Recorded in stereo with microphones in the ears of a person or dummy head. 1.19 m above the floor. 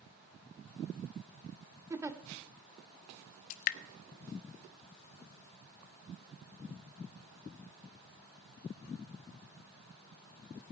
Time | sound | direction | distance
1.9 | a giggle | 15° right (ahead or behind) | 1.0 m
3.5 | dripping | 50° left (ahead or behind) | 0.5 m